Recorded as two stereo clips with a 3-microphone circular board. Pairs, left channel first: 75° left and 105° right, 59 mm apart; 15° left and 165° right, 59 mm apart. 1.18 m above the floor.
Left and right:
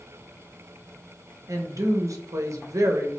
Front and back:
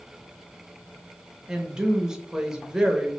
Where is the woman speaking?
85° right, 0.7 m.